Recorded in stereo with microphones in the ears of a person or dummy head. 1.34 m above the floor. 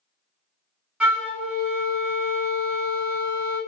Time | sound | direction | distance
1.0 | a flute | 5° right (ahead or behind) | 0.6 m